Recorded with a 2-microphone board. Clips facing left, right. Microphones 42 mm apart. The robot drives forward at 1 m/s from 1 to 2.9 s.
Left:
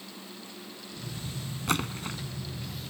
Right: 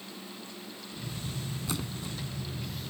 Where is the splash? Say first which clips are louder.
Left 9 dB; 55° left (ahead or behind); by 2.2 s 50° left (ahead or behind).